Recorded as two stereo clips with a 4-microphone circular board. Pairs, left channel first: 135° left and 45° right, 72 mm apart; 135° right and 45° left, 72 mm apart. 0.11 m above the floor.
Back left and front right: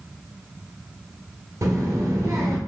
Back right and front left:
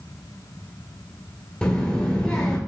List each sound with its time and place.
1.6 s a child speaking: 60° right, 1.1 m